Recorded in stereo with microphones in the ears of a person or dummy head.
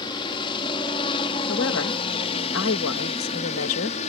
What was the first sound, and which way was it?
A helicopter, 25° left (ahead or behind).